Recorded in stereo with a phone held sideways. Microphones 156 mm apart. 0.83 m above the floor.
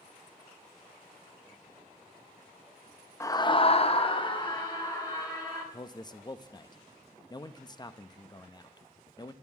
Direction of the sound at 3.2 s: 20° left (ahead or behind).